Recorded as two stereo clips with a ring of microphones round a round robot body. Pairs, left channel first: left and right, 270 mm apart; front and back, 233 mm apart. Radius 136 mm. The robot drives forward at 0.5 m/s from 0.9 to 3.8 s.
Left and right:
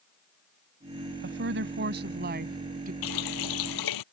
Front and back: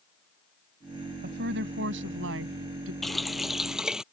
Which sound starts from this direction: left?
A running tap, at 3.0 s.